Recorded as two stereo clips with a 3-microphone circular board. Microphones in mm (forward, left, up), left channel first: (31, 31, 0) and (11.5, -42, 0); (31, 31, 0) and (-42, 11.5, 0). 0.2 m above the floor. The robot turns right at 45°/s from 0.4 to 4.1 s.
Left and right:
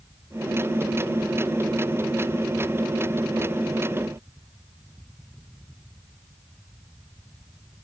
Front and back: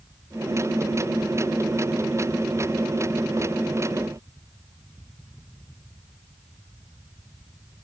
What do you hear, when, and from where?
Only background noise.